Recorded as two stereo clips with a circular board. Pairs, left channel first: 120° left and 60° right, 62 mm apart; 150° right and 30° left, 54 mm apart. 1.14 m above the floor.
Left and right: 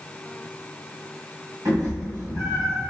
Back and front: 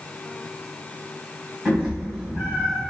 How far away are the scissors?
I don't hear scissors.